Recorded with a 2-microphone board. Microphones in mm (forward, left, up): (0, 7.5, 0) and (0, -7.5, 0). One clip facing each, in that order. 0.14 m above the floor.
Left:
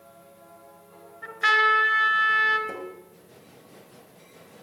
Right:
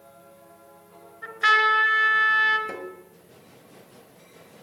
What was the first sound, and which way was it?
A trumpet, 10° right (ahead or behind).